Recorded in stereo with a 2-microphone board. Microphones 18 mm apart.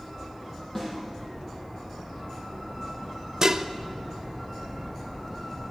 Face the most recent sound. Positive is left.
turn(degrees=-30)  # may be behind; listen again after turning